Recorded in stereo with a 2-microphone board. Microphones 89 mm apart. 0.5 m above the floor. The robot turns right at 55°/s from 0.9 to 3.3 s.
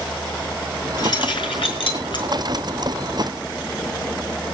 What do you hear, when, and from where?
1.0 s keys jangling: 50° left (ahead or behind), 5 m; by 2.2 s 60° left (ahead or behind), 5 m